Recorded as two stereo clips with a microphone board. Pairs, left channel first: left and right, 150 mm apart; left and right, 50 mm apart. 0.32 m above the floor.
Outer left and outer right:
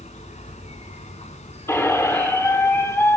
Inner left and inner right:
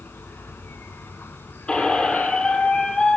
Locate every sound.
0.0 s an insect: 50° left (ahead or behind), 1.3 m
1.7 s a squeak: 20° left (ahead or behind), 1.6 m